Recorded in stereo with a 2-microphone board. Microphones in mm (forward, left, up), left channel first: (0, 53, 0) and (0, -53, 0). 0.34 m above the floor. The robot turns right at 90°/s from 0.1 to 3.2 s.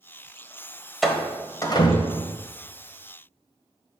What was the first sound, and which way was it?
A door slam, centre (ahead or behind).